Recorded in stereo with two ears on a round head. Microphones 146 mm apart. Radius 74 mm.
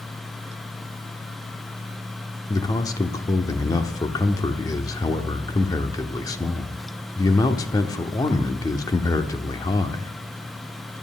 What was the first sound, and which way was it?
A man speaking, 20° left (ahead or behind).